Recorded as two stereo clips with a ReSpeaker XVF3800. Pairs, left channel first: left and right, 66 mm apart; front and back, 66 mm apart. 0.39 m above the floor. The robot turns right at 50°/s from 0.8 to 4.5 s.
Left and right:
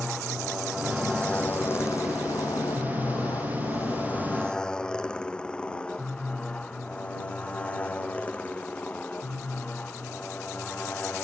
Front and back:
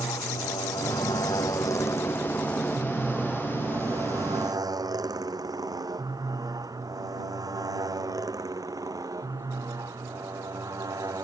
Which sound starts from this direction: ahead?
A motorcycle, at 0.0 s.